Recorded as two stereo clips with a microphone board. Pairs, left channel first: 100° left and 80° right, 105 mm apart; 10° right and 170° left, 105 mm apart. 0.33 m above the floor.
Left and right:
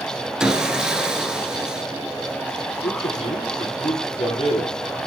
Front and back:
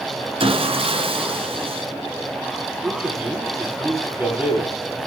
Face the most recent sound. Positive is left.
turn(degrees=100)